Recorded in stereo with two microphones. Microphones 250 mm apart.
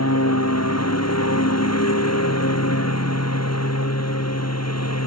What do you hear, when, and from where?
0.0 s a lawn mower: 85° left